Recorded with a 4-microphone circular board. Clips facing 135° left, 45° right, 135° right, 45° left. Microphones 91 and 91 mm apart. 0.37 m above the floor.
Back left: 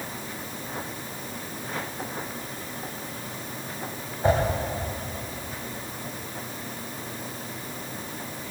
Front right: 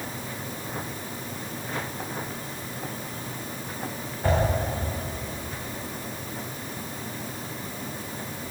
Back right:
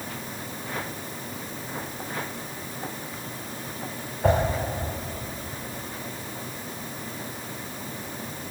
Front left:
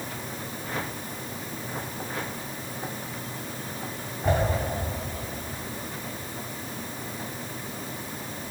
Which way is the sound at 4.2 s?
155° right.